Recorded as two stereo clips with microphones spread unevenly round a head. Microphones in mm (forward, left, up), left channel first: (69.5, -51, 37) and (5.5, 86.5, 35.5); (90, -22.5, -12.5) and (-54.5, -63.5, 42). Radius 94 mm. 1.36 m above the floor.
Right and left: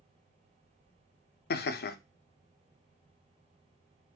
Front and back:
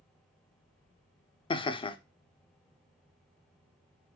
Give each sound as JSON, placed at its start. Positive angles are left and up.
{"t": 1.5, "sound": "laughter", "azimuth_deg": -45, "distance_m": 0.6}